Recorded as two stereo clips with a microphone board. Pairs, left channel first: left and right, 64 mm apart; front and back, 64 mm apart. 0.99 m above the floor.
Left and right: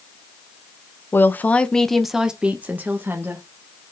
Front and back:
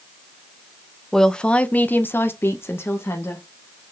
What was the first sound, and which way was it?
A woman speaking, 80° left.